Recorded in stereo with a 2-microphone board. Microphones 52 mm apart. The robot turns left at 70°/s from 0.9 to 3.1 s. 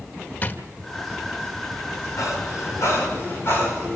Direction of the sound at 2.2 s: 65° left (ahead or behind).